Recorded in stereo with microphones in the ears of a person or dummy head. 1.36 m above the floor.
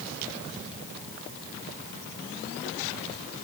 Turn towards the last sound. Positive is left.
No sound to turn to.